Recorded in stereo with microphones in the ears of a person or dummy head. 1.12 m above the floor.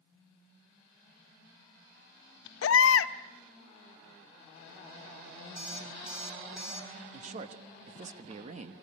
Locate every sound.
2.6 s a baby crying: 85° left, 0.7 m
5.6 s an alarm clock: 5° right (ahead or behind), 6 m
7.1 s a man speaking: 40° right (ahead or behind), 1.2 m